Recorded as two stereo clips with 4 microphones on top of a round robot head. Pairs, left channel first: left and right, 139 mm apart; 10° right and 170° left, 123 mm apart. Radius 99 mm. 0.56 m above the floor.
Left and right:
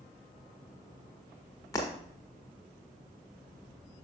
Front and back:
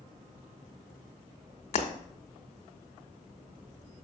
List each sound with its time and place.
1.7 s breaking glass: 20° left, 1.3 m